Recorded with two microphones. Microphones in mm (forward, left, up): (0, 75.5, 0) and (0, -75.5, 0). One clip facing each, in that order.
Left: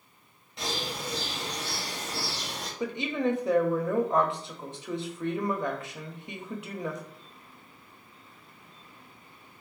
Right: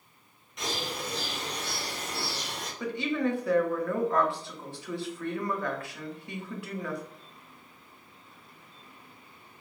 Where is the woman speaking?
20° left (ahead or behind), 0.6 m.